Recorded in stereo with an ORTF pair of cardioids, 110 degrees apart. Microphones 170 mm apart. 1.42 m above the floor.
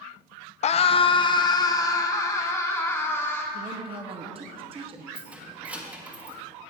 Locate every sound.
0.6 s a scream: 45° left, 0.5 m; by 3.4 s 15° left, 1.9 m
3.5 s a woman speaking: 35° right, 1.0 m
5.1 s keys jangling: 10° right, 1.4 m